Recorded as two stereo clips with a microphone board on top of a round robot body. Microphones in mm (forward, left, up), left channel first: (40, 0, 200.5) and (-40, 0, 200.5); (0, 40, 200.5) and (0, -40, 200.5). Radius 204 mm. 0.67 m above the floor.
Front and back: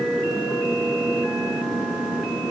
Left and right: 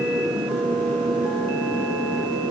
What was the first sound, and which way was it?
Only background noise.